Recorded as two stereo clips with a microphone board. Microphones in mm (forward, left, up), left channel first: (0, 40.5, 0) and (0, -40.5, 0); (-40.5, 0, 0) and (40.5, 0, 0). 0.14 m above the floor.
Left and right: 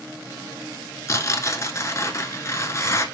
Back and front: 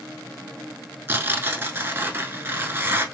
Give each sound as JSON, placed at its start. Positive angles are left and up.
{"t": 1.1, "sound": "tearing paper", "azimuth_deg": 50, "distance_m": 0.8}